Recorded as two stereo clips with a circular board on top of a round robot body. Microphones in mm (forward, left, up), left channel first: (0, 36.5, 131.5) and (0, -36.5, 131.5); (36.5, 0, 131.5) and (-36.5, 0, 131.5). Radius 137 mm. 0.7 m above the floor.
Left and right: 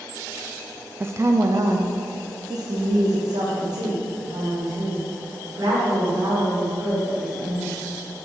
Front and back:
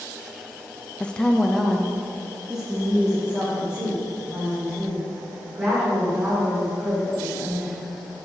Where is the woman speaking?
60° right, 0.5 m; by 7.7 s 105° right, 3.5 m.